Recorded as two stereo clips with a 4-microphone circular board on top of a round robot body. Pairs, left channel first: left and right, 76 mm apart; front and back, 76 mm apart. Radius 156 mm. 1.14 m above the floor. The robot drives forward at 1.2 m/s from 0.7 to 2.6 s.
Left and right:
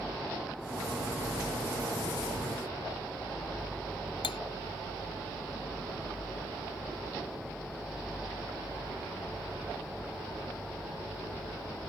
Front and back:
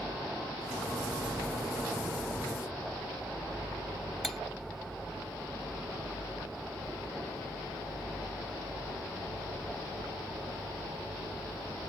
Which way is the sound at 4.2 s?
85° left.